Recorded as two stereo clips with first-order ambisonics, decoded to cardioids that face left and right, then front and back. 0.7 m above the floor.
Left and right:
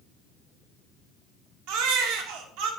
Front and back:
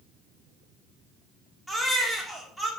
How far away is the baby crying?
About 1.2 m.